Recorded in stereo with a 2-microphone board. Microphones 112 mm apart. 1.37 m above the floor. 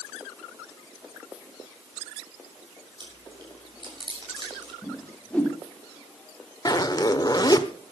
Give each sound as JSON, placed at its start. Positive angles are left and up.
{"t": 3.0, "sound": "chewing", "side_deg": -45, "distance_m": 6.5}
{"t": 4.8, "sound": "a whoosh", "side_deg": 10, "distance_m": 3.0}
{"t": 6.7, "sound": "a zipper", "side_deg": 35, "distance_m": 1.2}